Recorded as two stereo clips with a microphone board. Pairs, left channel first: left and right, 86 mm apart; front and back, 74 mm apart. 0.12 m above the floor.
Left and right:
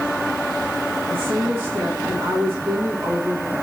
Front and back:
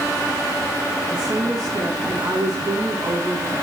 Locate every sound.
1.1 s a woman speaking: 150° right, 8.5 m